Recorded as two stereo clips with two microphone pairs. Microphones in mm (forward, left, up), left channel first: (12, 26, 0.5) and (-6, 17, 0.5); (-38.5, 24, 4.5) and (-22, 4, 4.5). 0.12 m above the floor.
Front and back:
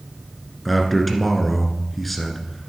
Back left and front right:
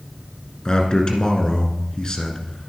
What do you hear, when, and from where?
0.7 s a man speaking: 110° left, 1.4 m